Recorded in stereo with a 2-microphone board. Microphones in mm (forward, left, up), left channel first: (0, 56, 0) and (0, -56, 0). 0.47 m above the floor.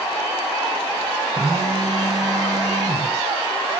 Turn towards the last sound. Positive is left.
turn(degrees=-35)  # may be behind; listen again after turning